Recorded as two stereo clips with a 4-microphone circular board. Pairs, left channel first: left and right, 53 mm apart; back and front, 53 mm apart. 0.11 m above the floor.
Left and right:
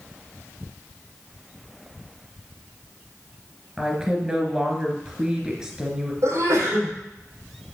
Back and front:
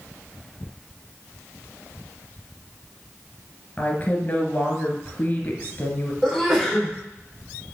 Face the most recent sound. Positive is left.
turn(degrees=-90)